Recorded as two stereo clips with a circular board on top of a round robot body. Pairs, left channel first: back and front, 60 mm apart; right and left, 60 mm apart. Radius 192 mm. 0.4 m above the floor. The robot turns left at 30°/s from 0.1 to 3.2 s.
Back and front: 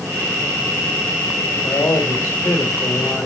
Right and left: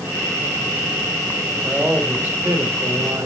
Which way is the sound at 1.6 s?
160° left.